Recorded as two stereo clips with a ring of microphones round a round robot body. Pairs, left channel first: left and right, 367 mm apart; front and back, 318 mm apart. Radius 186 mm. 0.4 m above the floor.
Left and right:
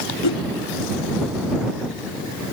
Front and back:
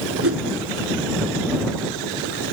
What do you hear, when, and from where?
0.2 s a whoosh: 135° left